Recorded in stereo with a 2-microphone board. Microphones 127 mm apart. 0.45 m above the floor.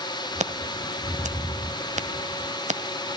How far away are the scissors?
About 1.6 m.